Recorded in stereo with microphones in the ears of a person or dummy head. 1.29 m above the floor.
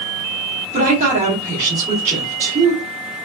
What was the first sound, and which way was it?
A woman speaking, 35° right (ahead or behind).